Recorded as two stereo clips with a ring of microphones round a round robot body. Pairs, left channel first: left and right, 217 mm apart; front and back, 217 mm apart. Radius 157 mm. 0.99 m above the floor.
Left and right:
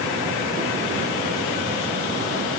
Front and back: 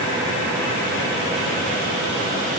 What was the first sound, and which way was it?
Only background noise.